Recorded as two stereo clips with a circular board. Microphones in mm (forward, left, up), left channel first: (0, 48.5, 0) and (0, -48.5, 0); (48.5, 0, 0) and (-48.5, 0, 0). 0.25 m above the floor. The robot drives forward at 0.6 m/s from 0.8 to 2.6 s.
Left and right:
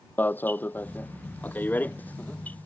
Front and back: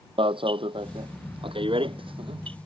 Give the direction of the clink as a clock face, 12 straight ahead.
I don't hear a clink.